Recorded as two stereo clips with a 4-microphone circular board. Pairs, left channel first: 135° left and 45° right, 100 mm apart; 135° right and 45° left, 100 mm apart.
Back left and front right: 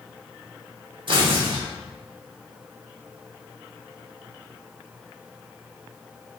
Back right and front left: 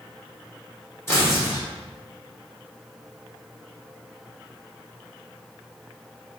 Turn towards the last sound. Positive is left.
turn(degrees=-75)